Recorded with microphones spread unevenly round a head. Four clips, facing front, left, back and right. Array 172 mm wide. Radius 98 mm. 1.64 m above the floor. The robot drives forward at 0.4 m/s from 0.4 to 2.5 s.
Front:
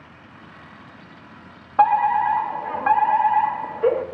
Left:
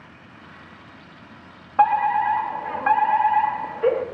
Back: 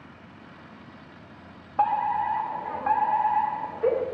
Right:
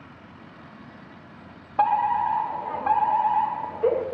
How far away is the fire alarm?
About 1.3 m.